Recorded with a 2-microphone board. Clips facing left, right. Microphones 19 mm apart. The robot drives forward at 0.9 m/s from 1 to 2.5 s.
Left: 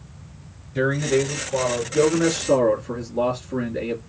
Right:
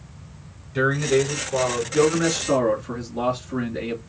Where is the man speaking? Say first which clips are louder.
Right 1 dB; 35° right (ahead or behind), 1.9 m; by 4.0 s 30° right (ahead or behind), 2 m.